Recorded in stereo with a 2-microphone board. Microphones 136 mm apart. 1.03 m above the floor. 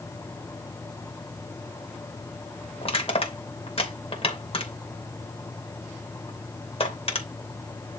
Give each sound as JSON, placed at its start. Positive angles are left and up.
{"t": 2.8, "sound": "crushing", "side_deg": 45, "distance_m": 2.5}